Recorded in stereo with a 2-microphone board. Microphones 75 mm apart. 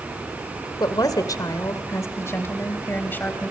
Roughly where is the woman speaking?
Left.